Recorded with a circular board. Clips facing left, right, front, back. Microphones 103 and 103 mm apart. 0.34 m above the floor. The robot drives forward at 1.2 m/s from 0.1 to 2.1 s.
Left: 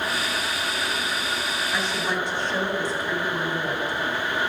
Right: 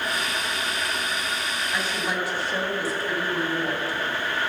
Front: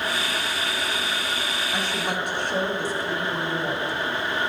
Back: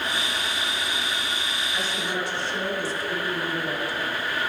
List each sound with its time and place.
1.7 s a woman speaking: 5° right, 3 m